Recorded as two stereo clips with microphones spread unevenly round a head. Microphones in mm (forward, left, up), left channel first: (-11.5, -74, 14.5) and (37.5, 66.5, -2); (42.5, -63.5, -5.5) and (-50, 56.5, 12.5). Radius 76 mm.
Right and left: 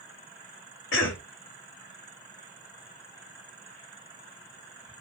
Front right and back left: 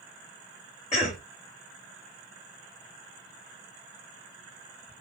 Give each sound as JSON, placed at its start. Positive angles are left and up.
{"t": 0.9, "sound": "a cough", "azimuth_deg": -110, "distance_m": 1.0}